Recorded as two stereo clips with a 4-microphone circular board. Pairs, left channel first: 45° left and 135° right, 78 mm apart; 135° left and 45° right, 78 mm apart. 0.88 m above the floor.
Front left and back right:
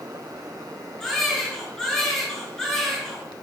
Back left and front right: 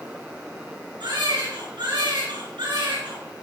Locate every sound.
1.0 s a baby crying: 40° right, 7 m